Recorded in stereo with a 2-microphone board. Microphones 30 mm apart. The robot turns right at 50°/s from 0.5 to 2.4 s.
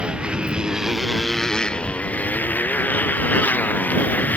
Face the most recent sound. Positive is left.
turn(degrees=65)